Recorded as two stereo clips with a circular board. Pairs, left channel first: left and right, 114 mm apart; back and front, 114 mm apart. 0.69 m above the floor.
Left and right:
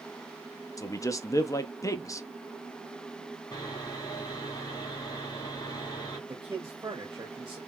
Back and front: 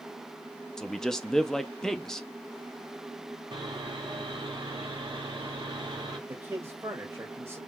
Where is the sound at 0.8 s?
95° left, 0.5 m.